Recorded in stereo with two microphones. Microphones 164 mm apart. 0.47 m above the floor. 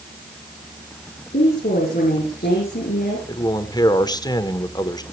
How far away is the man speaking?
About 1.6 m.